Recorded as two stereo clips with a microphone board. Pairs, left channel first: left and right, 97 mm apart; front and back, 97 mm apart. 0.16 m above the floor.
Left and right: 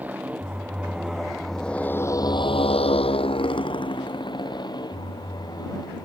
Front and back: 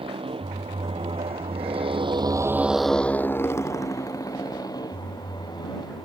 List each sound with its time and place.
0.0 s a motorcycle: 160° right; by 6.1 s 45° left